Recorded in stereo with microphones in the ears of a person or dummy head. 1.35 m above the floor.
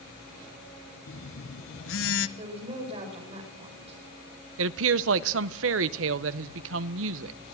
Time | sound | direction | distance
1.1 | a phone buzzing | 75° left (ahead or behind) | 1.3 m
2.4 | a woman speaking | 30° right (ahead or behind) | 6 m
4.6 | a woman speaking | 80° right | 0.8 m